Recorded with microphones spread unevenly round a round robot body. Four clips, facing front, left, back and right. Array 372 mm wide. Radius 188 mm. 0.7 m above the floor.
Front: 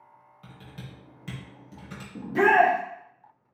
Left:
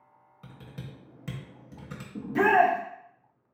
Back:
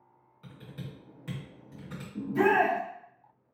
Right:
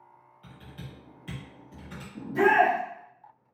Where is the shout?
60° left, 0.9 m.